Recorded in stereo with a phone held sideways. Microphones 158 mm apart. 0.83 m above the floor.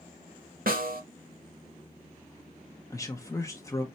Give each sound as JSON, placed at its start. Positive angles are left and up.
{"t": 0.7, "sound": "a snare drum", "side_deg": -70, "distance_m": 1.1}
{"t": 2.9, "sound": "a man speaking", "side_deg": 20, "distance_m": 0.6}